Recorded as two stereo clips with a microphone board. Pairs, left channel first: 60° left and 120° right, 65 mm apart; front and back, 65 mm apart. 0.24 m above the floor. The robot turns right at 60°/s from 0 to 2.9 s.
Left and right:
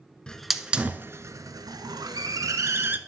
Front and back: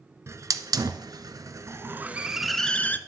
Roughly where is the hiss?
Behind left.